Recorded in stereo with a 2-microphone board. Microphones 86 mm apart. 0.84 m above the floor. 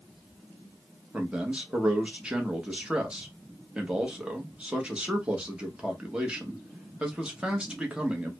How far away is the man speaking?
About 0.9 m.